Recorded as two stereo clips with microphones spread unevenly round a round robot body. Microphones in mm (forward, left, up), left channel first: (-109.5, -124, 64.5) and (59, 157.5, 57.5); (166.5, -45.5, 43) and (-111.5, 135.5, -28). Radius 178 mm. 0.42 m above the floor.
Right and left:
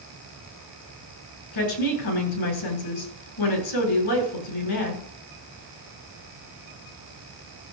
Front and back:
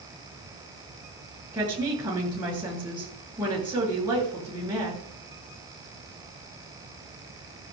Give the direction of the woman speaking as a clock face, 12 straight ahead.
4 o'clock.